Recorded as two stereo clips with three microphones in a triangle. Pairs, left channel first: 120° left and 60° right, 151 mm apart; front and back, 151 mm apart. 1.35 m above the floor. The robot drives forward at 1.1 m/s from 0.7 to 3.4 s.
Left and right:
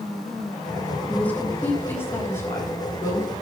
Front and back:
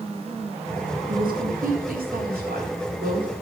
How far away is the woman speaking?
About 2.5 m.